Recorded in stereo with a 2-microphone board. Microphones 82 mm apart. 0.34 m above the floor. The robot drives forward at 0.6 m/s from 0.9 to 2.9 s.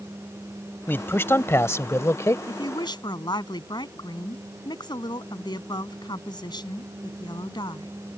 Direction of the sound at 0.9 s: 25° left (ahead or behind).